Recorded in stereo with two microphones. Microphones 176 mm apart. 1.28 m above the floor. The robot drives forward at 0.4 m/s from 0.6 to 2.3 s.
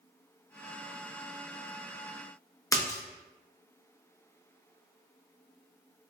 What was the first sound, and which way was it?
A splash, 20° left (ahead or behind).